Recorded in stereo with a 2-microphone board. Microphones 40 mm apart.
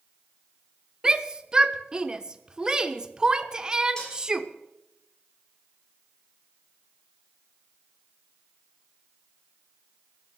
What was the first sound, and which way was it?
A shout, 20° right (ahead or behind).